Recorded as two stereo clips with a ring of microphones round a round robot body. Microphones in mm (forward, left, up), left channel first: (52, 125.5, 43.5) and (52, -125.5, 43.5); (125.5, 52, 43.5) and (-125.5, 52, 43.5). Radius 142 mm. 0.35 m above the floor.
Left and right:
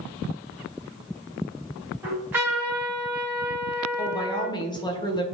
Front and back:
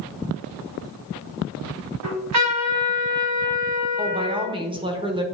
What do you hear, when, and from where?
2.0 s a trumpet: 175° right, 2.5 m
4.0 s a woman speaking: 140° left, 1.2 m